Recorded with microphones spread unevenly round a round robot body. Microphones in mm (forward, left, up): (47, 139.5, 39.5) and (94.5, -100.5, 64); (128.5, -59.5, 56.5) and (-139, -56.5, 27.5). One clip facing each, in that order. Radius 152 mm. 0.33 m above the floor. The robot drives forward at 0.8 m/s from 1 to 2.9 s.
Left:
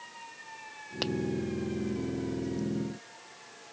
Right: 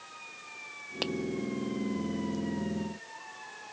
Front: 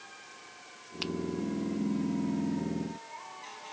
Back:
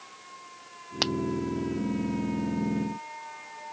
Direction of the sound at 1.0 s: 170° right.